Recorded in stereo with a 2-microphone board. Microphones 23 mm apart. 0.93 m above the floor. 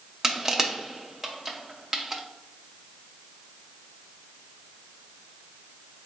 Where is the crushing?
20° right (ahead or behind), 0.6 m.